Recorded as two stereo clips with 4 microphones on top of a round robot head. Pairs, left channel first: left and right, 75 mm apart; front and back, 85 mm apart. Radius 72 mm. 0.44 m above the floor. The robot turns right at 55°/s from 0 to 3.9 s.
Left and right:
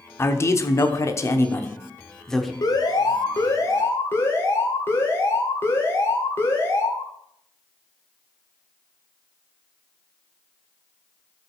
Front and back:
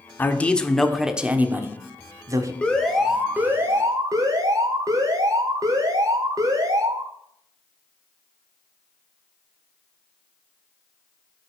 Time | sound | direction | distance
0.2 | a man speaking | 55° left | 1.2 m
2.6 | an alarm | 75° left | 2 m